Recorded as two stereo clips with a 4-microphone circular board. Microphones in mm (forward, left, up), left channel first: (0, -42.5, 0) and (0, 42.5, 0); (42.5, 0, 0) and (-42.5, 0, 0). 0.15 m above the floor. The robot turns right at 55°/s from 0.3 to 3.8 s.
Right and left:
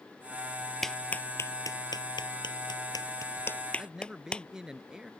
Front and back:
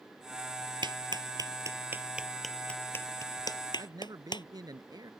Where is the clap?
Straight behind; by 4.5 s 15° right.